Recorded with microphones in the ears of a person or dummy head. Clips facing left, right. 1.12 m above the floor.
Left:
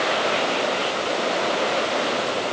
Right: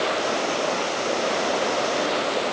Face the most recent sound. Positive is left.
No sound to turn to.